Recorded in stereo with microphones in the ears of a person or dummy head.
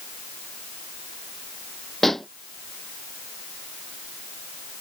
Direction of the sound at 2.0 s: Centre (ahead or behind).